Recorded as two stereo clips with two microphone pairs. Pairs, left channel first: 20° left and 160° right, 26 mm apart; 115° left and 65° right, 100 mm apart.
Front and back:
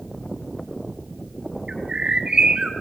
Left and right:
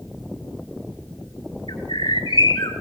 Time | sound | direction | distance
1.7 | a bird | 145° left | 2.5 m